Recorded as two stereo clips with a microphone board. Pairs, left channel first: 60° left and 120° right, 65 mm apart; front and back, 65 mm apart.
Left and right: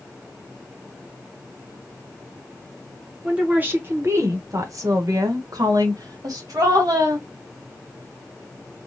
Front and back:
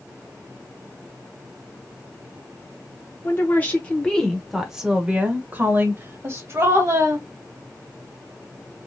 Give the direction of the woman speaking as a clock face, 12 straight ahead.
2 o'clock.